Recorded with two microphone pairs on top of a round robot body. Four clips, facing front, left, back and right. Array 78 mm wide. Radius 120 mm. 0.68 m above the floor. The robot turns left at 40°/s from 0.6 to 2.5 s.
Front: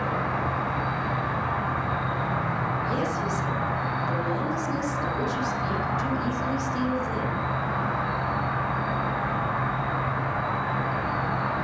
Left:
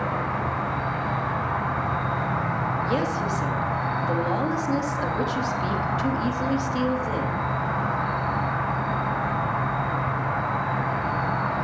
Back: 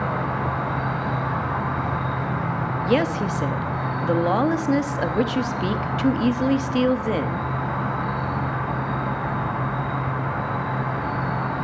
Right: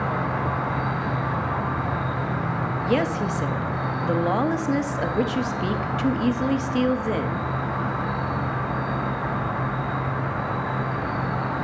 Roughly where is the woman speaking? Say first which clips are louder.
Right 2 dB, back 5 dB; behind.